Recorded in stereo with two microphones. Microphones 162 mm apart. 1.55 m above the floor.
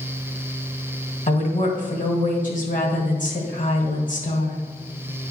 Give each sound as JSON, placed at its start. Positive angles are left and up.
{"t": 1.3, "sound": "a woman speaking", "side_deg": 55, "distance_m": 1.7}